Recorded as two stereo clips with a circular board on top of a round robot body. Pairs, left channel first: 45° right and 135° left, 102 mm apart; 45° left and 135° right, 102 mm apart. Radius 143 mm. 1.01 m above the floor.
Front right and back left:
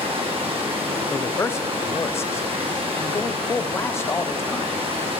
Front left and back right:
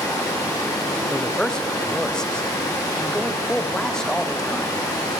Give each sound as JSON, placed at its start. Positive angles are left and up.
{"t": 0.0, "sound": "running water", "azimuth_deg": 100, "distance_m": 2.0}
{"t": 1.1, "sound": "a man speaking", "azimuth_deg": -30, "distance_m": 0.7}